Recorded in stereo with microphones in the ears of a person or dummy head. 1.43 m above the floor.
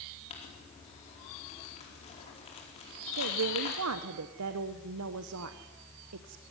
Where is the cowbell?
No cowbell in this recording.